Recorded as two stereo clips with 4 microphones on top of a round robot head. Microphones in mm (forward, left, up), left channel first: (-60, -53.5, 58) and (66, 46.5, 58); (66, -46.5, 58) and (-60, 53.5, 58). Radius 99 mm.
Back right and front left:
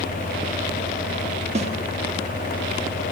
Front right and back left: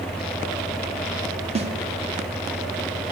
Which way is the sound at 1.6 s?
90° left.